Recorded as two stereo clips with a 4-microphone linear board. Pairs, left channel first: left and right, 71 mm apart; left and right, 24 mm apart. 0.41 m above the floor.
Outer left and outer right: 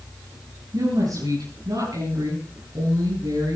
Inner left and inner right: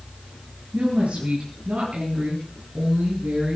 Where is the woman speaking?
65° right (ahead or behind), 10 m; by 3.6 s 75° right (ahead or behind), 11.5 m.